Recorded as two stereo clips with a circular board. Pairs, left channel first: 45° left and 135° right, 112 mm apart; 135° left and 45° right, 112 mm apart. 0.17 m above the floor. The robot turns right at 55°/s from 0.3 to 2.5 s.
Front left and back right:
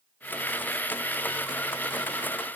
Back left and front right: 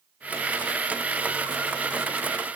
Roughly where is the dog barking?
No dog barking in this recording.